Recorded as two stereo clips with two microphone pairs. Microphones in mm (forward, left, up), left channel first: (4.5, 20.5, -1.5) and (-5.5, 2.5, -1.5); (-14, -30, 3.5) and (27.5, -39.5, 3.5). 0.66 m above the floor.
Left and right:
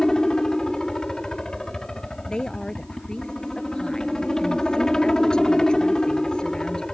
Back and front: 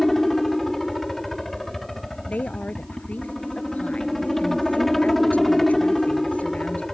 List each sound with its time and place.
0.0 s a helicopter: 90° left
2.3 s a woman speaking: 115° left